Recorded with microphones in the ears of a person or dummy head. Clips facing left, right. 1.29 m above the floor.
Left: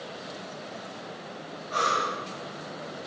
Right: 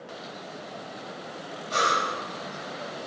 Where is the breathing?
35° right (ahead or behind), 4.5 m.